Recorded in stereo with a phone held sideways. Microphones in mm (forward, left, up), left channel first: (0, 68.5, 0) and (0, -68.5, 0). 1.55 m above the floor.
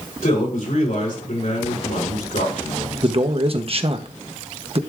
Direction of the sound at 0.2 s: 75° left (ahead or behind).